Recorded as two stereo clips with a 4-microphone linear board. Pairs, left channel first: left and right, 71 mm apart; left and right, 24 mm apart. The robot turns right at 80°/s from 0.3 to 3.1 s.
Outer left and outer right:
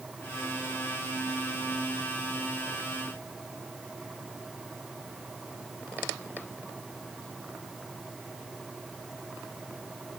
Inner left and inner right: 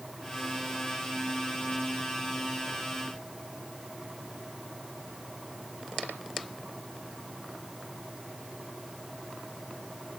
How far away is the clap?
I don't hear a clap.